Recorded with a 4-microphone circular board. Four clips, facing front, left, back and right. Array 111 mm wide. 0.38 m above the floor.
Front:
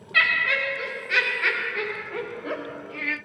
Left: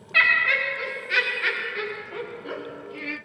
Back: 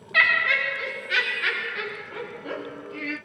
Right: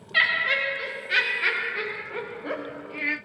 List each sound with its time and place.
0.1 s laughter: 100° left, 1.3 m; by 3.2 s 40° right, 1.8 m